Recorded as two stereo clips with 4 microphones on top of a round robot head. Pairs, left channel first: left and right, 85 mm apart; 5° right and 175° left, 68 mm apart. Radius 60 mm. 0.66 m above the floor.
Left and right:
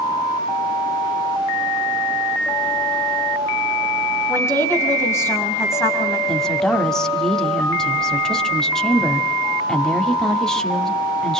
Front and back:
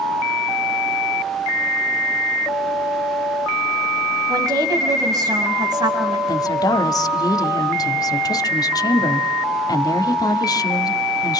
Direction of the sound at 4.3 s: 150° left.